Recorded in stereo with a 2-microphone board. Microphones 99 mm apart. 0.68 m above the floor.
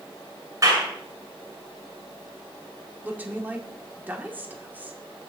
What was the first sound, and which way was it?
A clap, 35° right (ahead or behind).